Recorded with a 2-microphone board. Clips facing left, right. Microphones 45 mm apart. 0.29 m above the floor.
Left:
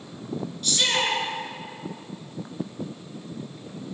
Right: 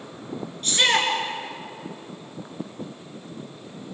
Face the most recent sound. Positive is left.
turn(degrees=-40)  # may be behind; listen again after turning